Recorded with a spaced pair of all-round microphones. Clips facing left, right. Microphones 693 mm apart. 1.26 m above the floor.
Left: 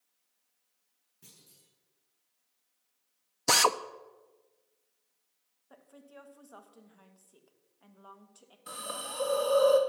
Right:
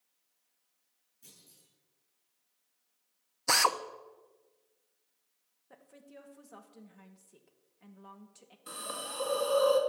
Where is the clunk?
80° left, 8.5 m.